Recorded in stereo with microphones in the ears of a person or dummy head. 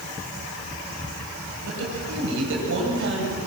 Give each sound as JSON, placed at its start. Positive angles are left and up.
{"t": 1.6, "sound": "a woman speaking", "side_deg": -70, "distance_m": 8.0}